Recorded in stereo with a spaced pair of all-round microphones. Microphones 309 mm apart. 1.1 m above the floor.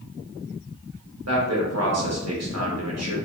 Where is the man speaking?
55° right (ahead or behind), 1.0 m.